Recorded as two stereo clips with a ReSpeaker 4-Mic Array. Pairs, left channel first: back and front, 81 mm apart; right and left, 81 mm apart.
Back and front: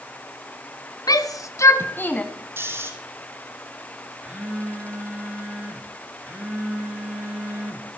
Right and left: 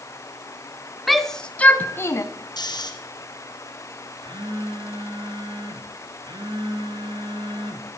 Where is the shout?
Straight behind, 1.6 m; by 2.2 s 115° right, 1.4 m.